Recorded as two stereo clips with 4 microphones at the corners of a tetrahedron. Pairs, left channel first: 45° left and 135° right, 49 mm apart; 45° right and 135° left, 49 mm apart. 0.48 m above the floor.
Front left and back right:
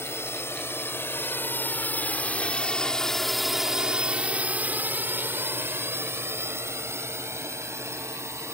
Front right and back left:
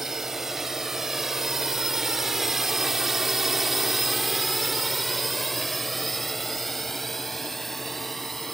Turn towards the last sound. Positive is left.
turn(degrees=-130)